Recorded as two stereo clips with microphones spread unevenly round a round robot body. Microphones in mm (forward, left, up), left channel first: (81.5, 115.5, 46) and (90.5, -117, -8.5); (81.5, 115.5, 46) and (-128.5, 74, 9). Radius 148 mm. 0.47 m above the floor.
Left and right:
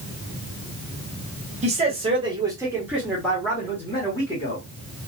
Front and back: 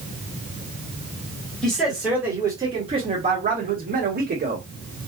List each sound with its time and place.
1.6 s a man speaking: 85° right, 1.2 m; by 4.7 s 175° left, 1.5 m